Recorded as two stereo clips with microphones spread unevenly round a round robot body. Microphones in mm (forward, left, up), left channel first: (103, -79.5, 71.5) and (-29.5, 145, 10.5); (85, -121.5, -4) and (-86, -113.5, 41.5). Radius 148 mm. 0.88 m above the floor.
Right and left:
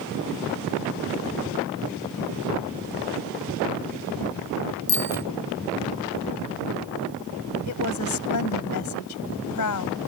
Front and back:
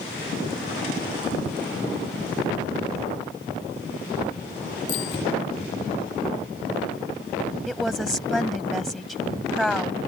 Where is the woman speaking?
95° right.